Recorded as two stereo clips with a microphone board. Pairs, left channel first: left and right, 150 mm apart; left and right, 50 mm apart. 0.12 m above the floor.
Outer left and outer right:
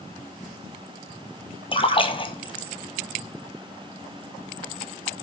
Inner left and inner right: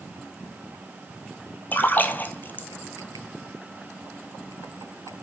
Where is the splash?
35° left (ahead or behind), 0.8 m.